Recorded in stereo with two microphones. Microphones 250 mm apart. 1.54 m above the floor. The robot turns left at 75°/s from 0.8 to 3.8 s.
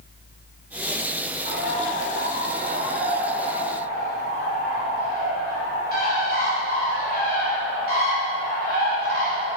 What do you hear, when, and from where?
1.4 s a bird: 40° right, 4 m; by 9.6 s 145° left, 4 m